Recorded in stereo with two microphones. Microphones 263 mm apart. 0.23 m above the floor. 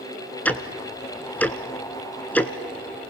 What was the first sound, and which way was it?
Ticking, 5° left (ahead or behind).